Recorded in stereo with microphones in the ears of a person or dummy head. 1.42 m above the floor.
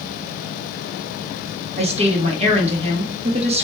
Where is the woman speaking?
30° right (ahead or behind), 1.0 m.